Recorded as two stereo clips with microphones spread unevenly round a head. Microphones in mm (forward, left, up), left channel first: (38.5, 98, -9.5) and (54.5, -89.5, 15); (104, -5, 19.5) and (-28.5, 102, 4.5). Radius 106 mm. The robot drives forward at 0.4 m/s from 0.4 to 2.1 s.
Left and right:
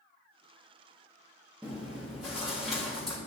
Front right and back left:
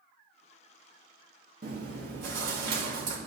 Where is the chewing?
175° right, 1.7 m.